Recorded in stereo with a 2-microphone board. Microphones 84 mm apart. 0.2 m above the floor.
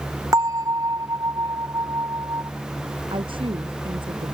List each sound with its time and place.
0.3 s a bell: 40° right (ahead or behind)
3.1 s a woman speaking: 80° right